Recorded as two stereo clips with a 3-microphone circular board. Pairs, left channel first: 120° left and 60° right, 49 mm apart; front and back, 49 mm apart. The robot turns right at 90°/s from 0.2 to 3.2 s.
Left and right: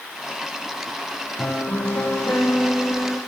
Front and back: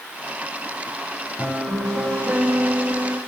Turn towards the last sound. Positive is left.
turn(degrees=-135)